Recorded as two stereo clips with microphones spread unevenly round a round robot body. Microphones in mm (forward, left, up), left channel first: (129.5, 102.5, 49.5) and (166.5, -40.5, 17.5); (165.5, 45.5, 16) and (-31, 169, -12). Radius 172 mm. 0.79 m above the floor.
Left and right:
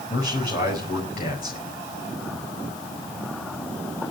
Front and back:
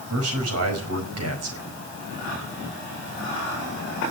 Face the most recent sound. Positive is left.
turn(degrees=160)